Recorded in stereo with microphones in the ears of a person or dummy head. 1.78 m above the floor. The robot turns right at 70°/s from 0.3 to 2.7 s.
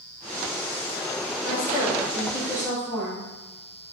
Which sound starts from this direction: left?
A woman speaking, at 1.4 s.